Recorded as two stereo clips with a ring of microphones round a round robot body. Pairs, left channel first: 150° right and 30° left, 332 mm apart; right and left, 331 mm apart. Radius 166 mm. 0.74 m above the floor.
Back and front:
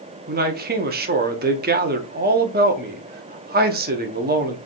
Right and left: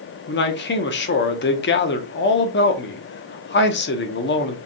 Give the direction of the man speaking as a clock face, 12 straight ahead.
1 o'clock.